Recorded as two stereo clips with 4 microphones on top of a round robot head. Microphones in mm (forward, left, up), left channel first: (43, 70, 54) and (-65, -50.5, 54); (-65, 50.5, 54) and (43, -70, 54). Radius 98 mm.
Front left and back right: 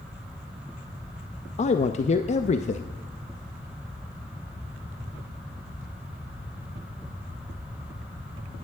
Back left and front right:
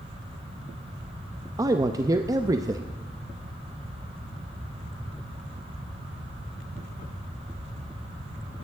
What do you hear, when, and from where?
1.6 s a man speaking: 15° left, 0.6 m